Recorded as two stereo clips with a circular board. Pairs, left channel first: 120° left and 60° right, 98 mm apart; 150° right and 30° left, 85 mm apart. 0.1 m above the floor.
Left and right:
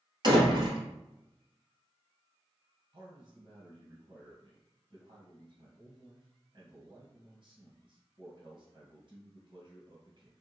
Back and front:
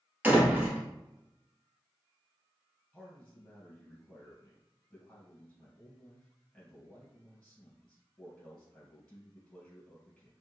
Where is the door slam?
35° right, 1.7 m.